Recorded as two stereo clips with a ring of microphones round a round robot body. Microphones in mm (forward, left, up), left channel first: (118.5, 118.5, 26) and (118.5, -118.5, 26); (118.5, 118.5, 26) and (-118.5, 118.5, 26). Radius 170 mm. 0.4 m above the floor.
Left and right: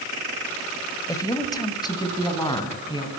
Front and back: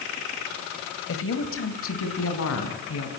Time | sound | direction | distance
1.1 | a woman speaking | 15° left | 2.5 m